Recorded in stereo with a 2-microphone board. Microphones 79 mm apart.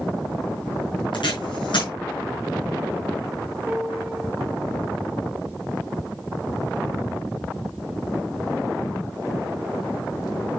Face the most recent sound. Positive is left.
turn(degrees=-20)  # may be behind; listen again after turning